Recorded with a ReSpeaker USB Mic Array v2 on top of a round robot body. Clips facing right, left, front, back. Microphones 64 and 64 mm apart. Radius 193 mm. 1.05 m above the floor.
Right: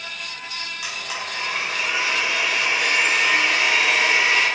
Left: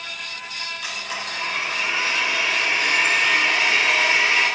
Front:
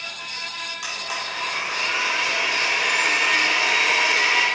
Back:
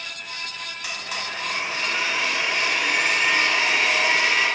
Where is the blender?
5° right, 4 m.